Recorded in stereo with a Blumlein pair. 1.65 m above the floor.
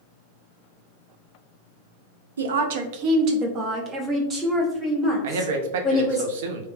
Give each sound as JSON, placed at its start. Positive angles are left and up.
{"t": 2.4, "sound": "a woman speaking", "azimuth_deg": -70, "distance_m": 0.6}
{"t": 5.2, "sound": "a man speaking", "azimuth_deg": -55, "distance_m": 0.7}